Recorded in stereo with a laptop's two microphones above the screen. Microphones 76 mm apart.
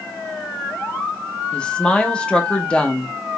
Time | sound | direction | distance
1.5 | a woman speaking | 15° left (ahead or behind) | 0.8 m